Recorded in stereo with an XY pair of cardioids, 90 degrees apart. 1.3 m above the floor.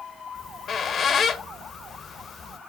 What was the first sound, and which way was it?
A squeak, 65° left.